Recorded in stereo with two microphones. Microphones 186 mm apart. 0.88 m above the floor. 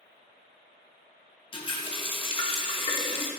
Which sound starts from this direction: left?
A running tap, at 1.5 s.